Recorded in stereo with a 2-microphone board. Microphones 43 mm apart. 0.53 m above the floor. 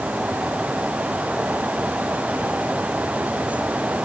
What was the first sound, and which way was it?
Only background noise.